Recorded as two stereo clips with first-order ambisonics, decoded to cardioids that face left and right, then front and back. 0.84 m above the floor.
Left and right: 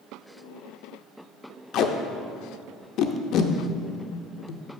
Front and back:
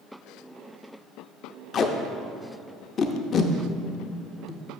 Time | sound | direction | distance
1.7 | tape being pulled | 60° left | 0.6 m